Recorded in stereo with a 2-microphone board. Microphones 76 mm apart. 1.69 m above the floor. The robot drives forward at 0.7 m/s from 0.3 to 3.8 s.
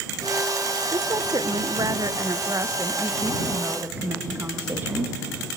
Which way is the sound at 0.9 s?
65° right (ahead or behind).